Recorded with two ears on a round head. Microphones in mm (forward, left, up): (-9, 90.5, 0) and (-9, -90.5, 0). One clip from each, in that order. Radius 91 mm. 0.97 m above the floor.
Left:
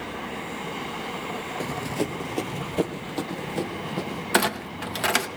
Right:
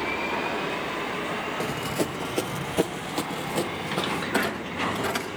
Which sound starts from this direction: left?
A clunk, at 4.3 s.